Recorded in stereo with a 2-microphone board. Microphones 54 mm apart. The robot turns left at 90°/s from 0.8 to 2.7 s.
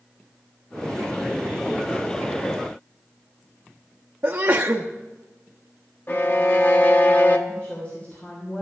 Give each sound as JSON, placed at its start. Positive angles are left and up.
{"t": 4.2, "sound": "a sneeze", "side_deg": -45, "distance_m": 0.8}
{"t": 6.1, "sound": "a violin", "side_deg": 40, "distance_m": 1.1}
{"t": 7.5, "sound": "a woman speaking", "side_deg": 30, "distance_m": 3.0}